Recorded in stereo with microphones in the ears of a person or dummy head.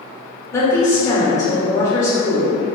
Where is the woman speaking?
20° left (ahead or behind), 0.8 m.